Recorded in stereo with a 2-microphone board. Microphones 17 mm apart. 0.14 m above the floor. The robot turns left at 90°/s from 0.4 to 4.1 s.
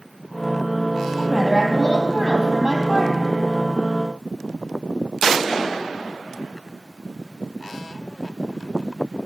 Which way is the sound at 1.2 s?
5° left.